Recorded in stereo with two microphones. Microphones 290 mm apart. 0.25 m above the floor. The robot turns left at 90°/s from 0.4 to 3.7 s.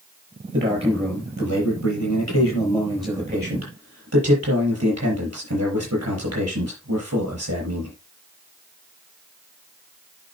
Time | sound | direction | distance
0.5 | a man speaking | 135° right | 6 m